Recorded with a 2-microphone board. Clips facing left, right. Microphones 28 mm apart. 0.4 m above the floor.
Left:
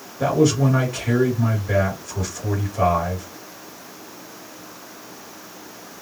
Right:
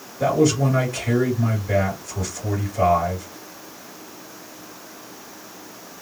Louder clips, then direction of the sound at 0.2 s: Even; 20° left (ahead or behind).